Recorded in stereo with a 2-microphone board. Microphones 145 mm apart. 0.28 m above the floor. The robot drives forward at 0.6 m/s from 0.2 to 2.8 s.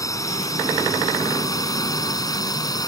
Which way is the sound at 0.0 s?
20° left (ahead or behind).